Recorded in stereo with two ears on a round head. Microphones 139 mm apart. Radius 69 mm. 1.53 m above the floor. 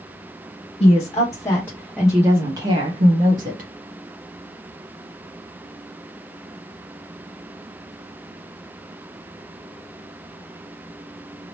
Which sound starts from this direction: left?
A woman speaking, at 0.8 s.